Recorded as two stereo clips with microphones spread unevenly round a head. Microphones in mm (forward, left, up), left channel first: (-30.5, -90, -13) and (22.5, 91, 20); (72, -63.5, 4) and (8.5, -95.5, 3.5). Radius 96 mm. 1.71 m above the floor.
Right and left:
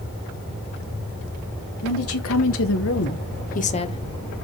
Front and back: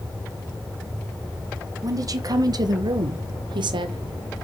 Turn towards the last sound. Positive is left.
turn(degrees=180)